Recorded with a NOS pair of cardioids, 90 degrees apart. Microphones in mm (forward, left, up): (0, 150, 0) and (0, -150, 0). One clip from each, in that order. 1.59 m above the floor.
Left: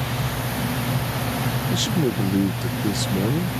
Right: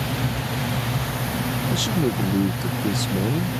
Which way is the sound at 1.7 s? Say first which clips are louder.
Even; 5° left.